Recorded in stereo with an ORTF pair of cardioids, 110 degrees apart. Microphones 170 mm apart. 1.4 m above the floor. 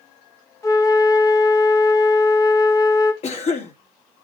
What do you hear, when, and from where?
0.6 s a flute: 20° left, 1.8 m
3.2 s a cough: 40° left, 3 m